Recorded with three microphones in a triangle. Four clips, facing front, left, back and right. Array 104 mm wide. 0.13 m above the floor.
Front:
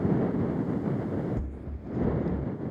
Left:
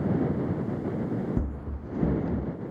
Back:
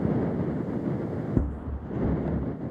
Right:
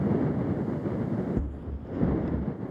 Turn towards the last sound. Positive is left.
turn(degrees=155)